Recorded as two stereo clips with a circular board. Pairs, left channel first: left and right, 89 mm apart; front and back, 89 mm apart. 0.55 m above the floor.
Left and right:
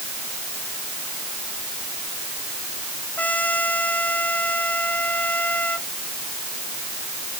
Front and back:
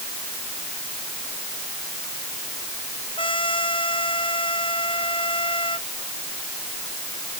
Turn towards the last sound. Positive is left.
turn(degrees=20)